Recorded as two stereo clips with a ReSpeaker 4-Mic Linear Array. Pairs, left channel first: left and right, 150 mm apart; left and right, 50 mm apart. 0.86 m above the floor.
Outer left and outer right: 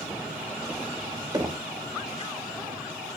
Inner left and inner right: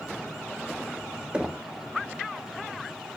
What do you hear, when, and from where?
1.3 s knocking: 25° right (ahead or behind), 1.2 m